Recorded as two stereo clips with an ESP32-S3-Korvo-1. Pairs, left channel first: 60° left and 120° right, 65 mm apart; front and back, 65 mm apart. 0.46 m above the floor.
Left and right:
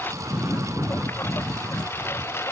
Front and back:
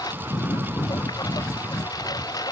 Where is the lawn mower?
Straight ahead; by 2.5 s 10° left.